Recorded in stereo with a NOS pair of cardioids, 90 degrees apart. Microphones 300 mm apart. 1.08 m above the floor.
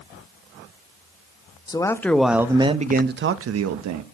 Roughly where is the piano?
I don't hear a piano.